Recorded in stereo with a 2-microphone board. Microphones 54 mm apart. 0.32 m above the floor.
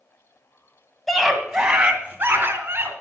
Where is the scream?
5° left (ahead or behind), 1.8 m; by 2.9 s 40° right (ahead or behind), 3 m.